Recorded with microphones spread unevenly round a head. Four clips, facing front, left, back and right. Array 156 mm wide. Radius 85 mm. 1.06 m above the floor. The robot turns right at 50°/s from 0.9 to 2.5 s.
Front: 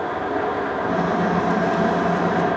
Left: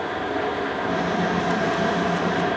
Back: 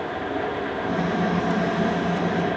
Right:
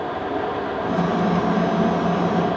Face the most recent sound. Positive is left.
No sound to turn to.